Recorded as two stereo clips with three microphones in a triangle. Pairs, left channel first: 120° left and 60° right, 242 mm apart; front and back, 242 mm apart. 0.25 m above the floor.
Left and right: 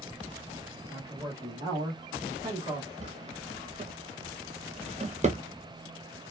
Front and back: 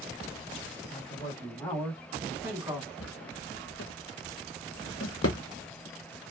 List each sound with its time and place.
0.9 s a man speaking: 5° right, 1.5 m; by 2.9 s 120° right, 1.7 m
3.0 s a drawer: 5° right, 0.7 m